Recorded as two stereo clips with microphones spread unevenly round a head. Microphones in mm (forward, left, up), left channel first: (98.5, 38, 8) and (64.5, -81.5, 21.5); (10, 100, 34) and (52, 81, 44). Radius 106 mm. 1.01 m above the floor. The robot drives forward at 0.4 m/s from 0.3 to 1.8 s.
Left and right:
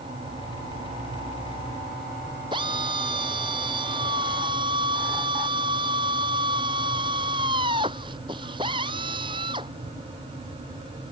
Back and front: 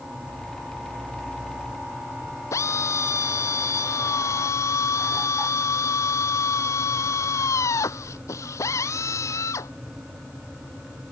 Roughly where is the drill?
Behind.